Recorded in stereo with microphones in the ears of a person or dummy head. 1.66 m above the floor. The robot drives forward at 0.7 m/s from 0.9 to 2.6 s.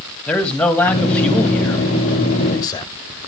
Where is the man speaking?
5° left (ahead or behind), 1.7 m; by 2.9 s 20° left (ahead or behind), 0.6 m.